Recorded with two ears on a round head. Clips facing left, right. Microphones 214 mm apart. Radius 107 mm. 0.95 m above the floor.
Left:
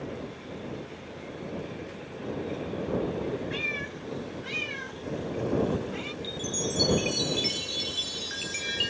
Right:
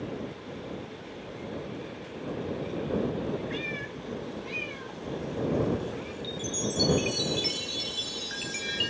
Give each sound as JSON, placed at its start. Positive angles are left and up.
{"t": 3.5, "sound": "a cat meowing", "side_deg": 10}
{"t": 6.2, "sound": "a chime", "side_deg": 0}